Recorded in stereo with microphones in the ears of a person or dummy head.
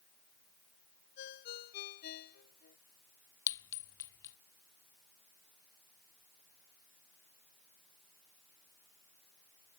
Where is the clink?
10° left (ahead or behind).